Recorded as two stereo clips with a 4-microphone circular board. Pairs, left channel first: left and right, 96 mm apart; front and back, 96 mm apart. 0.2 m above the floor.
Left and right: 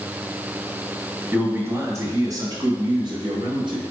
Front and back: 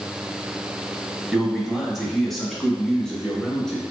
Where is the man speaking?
95° right, 1.0 m; by 3.8 s 85° right, 1.9 m.